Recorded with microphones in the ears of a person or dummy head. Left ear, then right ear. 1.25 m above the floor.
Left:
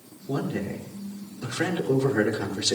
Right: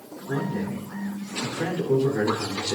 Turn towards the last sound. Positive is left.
turn(degrees=45)  # may be behind; listen again after turning